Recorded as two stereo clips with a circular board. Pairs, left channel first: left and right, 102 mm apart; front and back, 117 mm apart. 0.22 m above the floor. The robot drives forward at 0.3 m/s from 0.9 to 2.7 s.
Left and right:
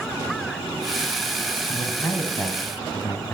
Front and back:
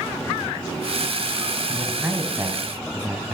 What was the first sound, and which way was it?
A man speaking, 110° left.